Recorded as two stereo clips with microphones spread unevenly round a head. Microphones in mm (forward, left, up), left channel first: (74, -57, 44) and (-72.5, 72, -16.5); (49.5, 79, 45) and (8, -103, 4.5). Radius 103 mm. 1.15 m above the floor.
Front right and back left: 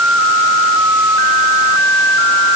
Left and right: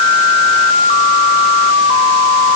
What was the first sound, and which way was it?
Only background noise.